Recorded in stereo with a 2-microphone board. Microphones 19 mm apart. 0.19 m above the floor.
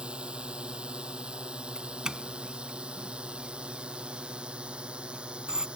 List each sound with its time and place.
0.0 s a drone: 65° right (ahead or behind); by 5.8 s 70° right (ahead or behind)
1.8 s a doorbell: 40° right (ahead or behind)